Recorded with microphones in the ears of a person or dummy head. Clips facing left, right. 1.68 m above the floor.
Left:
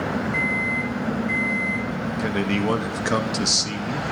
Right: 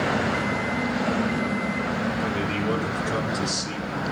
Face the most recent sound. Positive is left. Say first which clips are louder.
# left 3 dB
turn(degrees=75)  # may be behind; listen again after turning